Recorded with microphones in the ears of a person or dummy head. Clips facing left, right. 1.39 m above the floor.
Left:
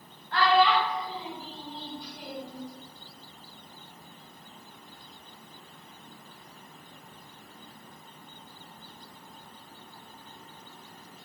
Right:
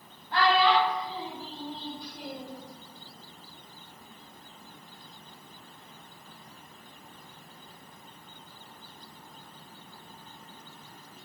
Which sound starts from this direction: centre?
A child speaking, at 0.3 s.